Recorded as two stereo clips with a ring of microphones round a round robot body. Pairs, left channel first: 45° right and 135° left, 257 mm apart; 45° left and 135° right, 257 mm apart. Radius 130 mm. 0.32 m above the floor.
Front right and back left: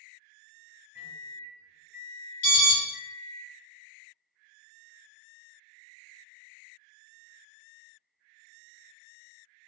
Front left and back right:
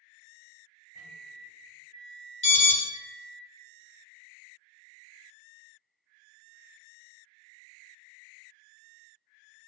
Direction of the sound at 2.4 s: 15° right.